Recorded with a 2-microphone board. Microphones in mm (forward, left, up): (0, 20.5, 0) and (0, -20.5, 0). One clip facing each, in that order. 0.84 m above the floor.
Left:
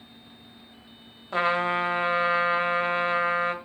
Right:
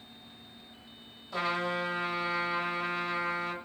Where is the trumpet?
45° left (ahead or behind), 1.2 m.